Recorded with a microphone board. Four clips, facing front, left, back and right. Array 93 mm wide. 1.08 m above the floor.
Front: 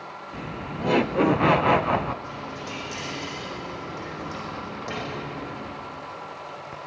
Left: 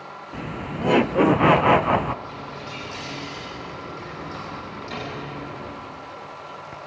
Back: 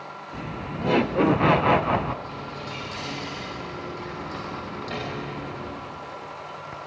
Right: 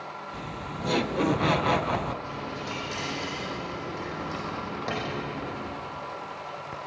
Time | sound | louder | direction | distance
0.3 | laughter | left 9 dB, back 1 dB | 85° left | 0.5 m
2.2 | a dropped coin | right 1 dB, even | 75° right | 9 m